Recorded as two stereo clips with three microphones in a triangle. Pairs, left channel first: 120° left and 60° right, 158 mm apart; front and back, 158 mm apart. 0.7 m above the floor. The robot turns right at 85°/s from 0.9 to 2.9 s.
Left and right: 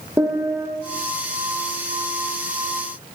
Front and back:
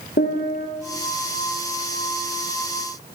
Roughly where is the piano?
Ahead.